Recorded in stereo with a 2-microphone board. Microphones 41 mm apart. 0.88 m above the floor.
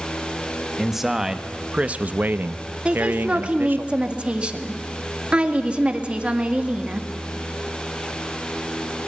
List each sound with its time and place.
0.8 s a man speaking: 5° right (ahead or behind), 1.3 m; by 3.9 s 55° right (ahead or behind), 1.4 m
2.9 s a woman speaking: 25° right (ahead or behind), 1.8 m